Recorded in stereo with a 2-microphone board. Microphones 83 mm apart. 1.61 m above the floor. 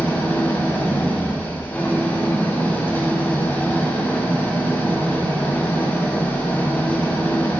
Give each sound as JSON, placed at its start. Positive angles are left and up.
{"t": 0.0, "sound": "an engine running", "side_deg": 20, "distance_m": 0.7}